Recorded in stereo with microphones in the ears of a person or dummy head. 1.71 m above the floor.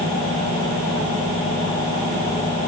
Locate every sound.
Only background noise.